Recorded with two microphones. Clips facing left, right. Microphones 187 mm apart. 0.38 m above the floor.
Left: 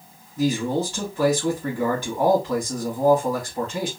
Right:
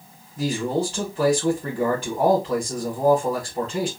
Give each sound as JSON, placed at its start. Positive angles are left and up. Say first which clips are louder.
{"t": 0.4, "sound": "a man speaking", "louder": "left 1 dB", "side_deg": -35, "distance_m": 2.0}